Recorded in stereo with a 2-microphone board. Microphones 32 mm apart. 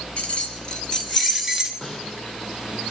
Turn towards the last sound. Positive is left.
turn(degrees=20)  # may be behind; listen again after turning